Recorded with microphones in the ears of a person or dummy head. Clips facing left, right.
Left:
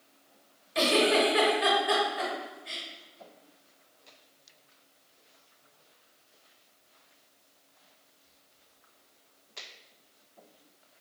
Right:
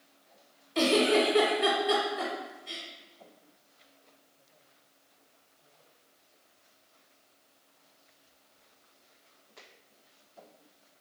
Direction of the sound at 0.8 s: 15° left (ahead or behind).